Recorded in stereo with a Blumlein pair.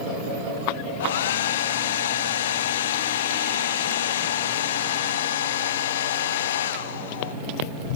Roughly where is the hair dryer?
Ahead left.